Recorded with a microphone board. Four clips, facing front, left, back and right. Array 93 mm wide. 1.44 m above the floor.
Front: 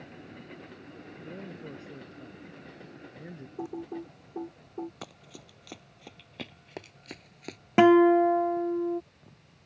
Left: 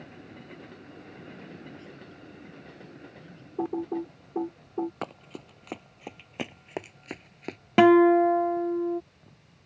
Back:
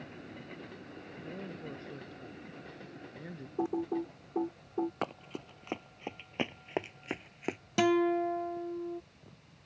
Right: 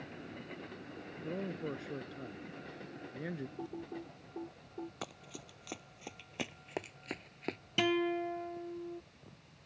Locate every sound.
1.2 s a man speaking: 80° right
3.6 s typing on a keyboard: 120° left
5.0 s running footsteps: 135° left; by 7.6 s 170° left
7.8 s a guitar: 55° left